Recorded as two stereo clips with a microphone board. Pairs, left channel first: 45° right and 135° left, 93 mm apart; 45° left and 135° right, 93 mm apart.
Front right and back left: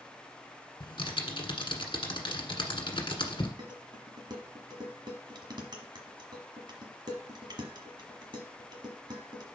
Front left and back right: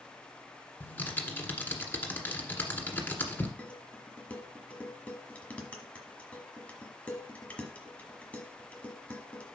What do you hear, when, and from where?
0.8 s typing on a keyboard: 20° right, 1.6 m
3.6 s dishes clattering: 115° left, 1.3 m